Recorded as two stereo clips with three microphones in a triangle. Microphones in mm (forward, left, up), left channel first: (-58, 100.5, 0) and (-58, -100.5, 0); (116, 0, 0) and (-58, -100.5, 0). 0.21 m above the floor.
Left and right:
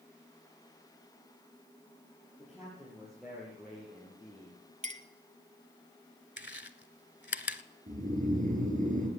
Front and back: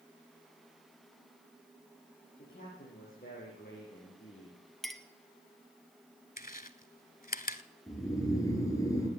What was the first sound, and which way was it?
A man speaking, 5° right.